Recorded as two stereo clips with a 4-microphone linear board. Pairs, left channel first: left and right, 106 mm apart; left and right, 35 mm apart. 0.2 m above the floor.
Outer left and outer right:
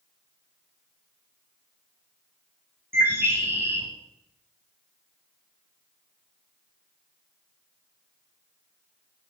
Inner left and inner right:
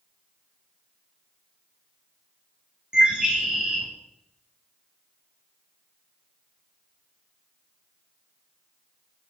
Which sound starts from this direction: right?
A bird, at 2.9 s.